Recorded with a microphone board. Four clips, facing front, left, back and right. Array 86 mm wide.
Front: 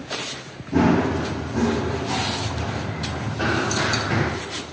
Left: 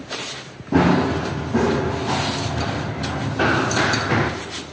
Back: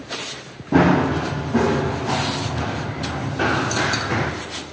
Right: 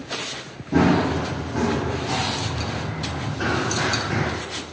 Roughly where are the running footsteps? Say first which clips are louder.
Left 2 dB, back 3 dB; behind left.